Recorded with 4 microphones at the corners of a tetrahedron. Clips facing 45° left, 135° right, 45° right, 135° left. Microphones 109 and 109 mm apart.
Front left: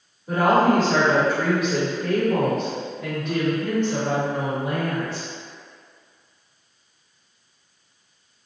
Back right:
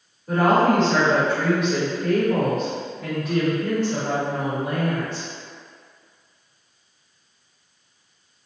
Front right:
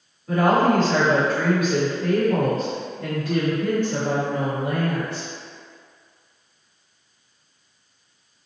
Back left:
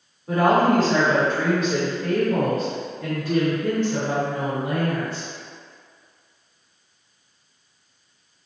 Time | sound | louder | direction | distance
0.3 | a woman speaking | even, even | 120° left | 1.2 m